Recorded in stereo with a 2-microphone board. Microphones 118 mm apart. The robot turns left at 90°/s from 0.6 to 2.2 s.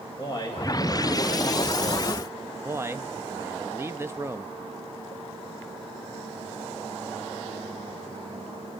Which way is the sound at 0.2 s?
40° left.